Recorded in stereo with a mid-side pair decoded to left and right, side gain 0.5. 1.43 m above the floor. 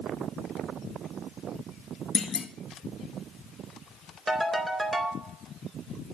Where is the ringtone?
15° right, 4 m.